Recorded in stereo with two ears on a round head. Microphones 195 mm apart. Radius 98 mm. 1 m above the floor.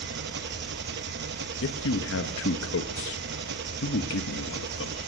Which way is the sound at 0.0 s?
50° right (ahead or behind).